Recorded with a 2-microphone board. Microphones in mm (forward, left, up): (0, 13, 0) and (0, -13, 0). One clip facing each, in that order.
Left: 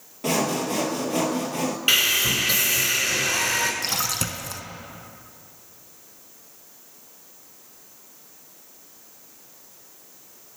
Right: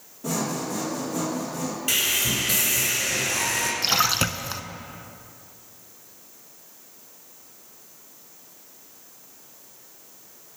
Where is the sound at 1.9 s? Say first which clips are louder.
Left 4 dB; 45° left (ahead or behind), 1.5 m.